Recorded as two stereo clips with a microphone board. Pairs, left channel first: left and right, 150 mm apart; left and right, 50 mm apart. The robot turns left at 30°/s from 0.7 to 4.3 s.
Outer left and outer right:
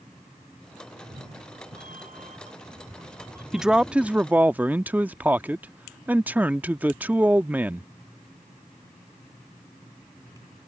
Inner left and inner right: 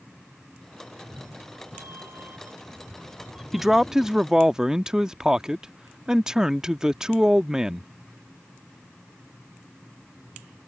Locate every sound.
0.9 s a cat meowing: 90° right; by 4.3 s 170° left
3.5 s a man speaking: 5° right (ahead or behind); by 7.9 s 10° right (ahead or behind)